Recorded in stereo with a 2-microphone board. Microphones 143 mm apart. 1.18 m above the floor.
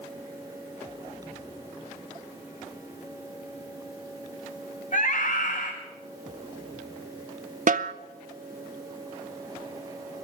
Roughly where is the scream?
Left.